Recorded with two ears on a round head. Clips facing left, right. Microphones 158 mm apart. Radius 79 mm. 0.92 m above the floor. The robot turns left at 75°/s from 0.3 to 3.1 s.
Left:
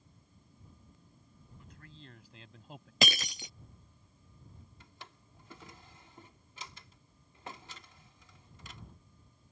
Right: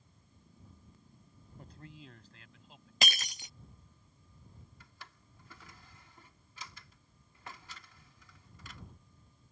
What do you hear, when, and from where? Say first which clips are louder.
1.6 s a man speaking: right 4 dB; 140° right; by 2.9 s 120° left
3.0 s breaking glass: left 6 dB; 70° left (ahead or behind); by 3.5 s 65° left (ahead or behind)
4.8 s a drawer: left 4 dB; 20° left (ahead or behind)